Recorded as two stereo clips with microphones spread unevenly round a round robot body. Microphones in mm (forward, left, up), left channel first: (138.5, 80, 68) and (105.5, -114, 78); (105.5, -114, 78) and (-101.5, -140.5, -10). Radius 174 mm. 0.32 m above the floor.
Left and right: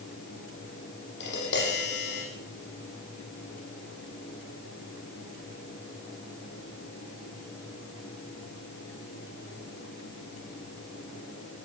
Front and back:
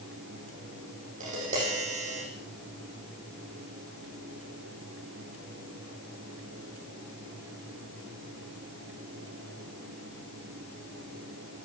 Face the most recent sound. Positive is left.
turn(degrees=125)